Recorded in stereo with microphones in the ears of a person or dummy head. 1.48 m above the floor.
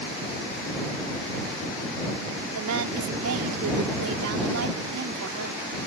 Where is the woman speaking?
85° right.